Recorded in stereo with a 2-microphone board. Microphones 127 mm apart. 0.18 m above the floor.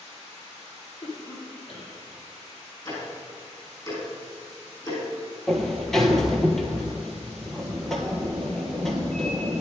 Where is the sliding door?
5° left (ahead or behind), 1.5 m.